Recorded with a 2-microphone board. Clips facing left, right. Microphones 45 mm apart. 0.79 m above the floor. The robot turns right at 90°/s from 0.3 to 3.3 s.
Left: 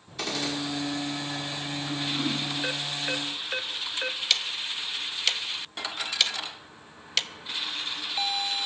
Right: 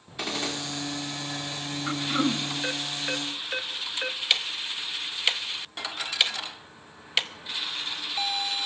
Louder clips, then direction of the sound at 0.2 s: Even; 10° right (ahead or behind).